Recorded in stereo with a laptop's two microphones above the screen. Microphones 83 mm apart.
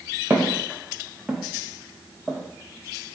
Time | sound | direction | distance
0.3 | footsteps | 20° right (ahead or behind) | 1.1 m